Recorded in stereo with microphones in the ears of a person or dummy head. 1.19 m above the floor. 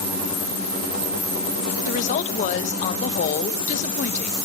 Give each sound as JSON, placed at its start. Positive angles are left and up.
{"t": 1.8, "sound": "a woman speaking", "side_deg": 45, "distance_m": 1.0}